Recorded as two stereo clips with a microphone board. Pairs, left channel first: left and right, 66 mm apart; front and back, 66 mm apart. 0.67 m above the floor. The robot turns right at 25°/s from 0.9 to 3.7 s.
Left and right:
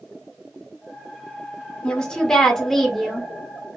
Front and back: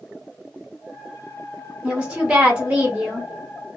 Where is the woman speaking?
140° left, 1.0 m; by 3.3 s 175° left, 1.0 m.